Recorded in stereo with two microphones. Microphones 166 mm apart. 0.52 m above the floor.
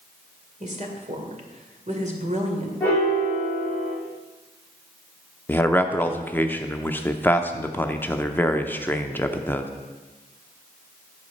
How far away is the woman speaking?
About 2 m.